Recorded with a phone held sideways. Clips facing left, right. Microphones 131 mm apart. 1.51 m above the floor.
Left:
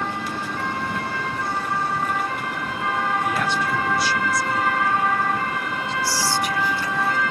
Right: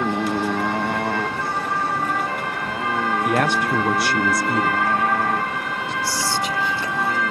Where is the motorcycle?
75° right (ahead or behind); by 7.3 s 55° right (ahead or behind).